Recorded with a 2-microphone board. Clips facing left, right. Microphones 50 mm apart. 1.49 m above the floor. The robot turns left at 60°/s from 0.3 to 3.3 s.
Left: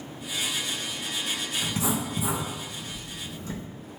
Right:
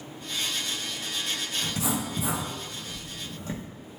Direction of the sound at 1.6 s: 35° left (ahead or behind).